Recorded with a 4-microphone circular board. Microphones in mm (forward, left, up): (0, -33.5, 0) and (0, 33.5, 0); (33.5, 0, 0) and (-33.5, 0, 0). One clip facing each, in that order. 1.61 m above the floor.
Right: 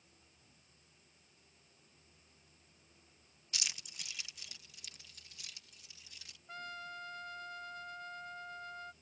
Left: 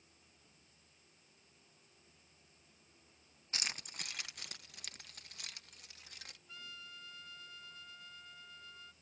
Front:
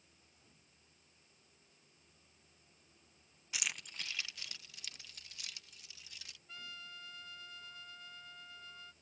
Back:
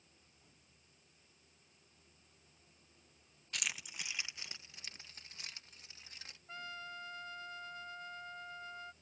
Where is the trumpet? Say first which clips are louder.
Right 9 dB, back 5 dB; 130° right.